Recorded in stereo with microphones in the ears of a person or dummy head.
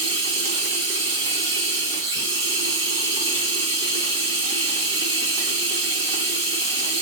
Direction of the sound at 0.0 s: 55° right (ahead or behind).